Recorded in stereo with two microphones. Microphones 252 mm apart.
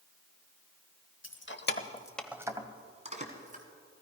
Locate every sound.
1.2 s keys jangling: 50° left (ahead or behind), 1.1 m; by 3.6 s 30° right (ahead or behind), 2.5 m